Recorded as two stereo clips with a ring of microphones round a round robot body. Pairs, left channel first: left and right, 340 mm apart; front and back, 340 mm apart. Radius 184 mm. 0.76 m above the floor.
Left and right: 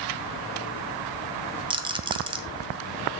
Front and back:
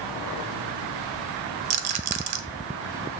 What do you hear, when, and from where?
1.7 s a rattle: 165° right, 0.8 m